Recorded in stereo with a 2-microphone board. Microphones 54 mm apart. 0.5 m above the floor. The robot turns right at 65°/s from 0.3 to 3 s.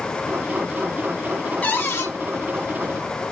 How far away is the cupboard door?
About 0.6 m.